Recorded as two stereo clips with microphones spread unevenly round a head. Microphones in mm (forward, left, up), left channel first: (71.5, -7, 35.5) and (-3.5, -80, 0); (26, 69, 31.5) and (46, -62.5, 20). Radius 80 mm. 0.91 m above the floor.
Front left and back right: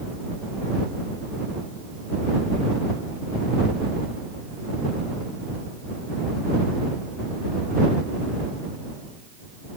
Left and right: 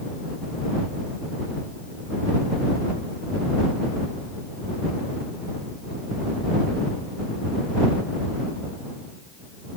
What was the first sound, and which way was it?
Only background noise.